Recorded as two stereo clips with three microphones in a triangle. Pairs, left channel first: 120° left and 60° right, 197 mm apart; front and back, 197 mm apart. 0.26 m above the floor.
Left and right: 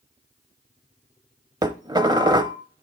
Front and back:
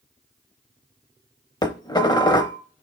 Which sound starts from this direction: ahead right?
Dishes clattering, at 1.6 s.